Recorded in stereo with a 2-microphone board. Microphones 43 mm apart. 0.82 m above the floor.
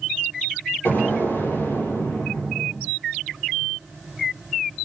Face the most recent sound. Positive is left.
turn(degrees=65)  # may be behind; listen again after turning